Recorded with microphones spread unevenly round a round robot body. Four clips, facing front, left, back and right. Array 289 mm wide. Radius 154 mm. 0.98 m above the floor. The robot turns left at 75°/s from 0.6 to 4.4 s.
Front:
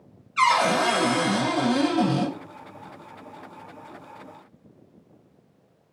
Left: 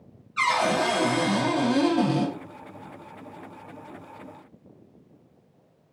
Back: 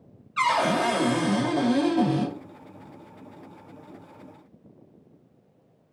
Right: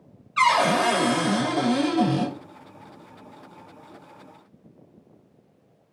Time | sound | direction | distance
0.4 | a cupboard door | 105° right | 1.3 m